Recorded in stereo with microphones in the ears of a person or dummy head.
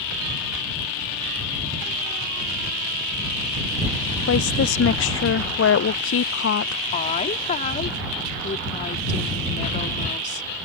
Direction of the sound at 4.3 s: 80° left.